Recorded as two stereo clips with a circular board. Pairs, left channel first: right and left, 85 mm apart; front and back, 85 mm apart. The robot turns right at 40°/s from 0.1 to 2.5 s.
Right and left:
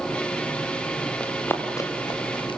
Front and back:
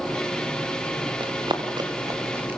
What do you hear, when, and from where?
1.2 s running footsteps: 170° right, 4 m; by 2.6 s 110° right, 5 m